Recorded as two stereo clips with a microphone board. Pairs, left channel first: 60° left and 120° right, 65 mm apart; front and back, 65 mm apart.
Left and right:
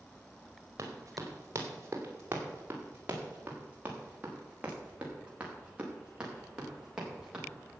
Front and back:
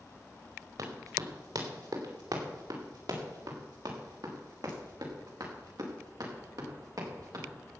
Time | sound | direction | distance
0.8 | running footsteps | 165° right | 4.5 m